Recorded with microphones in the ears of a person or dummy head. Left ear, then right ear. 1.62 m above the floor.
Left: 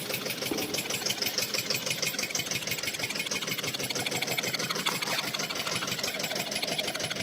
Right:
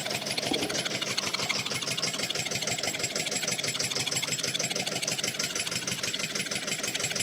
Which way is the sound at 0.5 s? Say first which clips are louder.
Right 3 dB; 20° right (ahead or behind).